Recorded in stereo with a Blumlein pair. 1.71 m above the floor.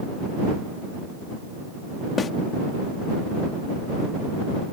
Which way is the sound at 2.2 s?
20° left.